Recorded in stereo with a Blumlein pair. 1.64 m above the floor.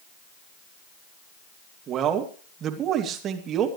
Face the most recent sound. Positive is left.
turn(degrees=-30)